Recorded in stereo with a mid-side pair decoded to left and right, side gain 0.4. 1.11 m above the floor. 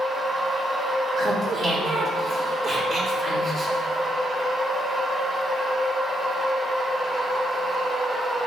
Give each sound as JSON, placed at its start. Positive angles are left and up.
{"t": 0.0, "sound": "a machine running", "azimuth_deg": -20, "distance_m": 1.0}
{"t": 1.2, "sound": "laughter", "azimuth_deg": -55, "distance_m": 0.9}